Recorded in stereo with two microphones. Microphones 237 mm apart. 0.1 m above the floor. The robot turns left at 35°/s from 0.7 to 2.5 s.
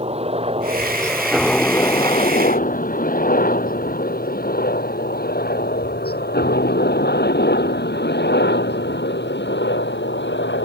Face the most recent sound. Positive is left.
turn(degrees=50)  # may be behind; listen again after turning